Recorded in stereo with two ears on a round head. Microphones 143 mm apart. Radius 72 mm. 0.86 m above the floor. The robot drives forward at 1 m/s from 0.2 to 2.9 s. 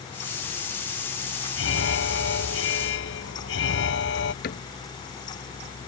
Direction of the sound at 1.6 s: 90° left.